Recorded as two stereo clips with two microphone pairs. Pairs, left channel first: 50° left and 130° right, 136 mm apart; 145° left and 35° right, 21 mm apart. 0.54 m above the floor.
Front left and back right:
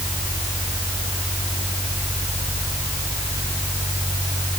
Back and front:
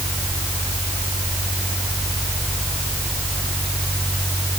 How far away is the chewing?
No chewing in this recording.